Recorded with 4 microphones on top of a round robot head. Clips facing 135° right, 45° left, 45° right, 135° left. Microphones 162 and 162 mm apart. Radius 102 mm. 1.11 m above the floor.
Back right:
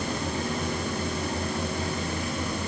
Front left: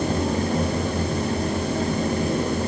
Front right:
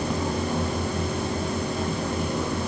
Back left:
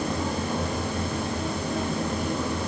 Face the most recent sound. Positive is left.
No sound to turn to.